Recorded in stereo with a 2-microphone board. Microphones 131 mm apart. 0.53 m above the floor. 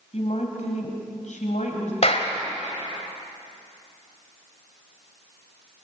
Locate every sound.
0.1 s a woman speaking: 60° left (ahead or behind), 3.5 m; by 1.9 s 70° left (ahead or behind), 3.5 m
2.0 s a clap: 55° left (ahead or behind), 2.5 m